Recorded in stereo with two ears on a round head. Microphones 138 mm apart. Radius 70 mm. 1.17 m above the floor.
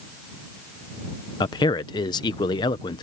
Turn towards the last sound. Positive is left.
turn(degrees=25)  # may be behind; listen again after turning